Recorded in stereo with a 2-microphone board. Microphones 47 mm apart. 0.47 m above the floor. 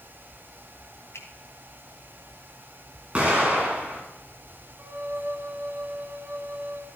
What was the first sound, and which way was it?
A finger snap, 70° left (ahead or behind).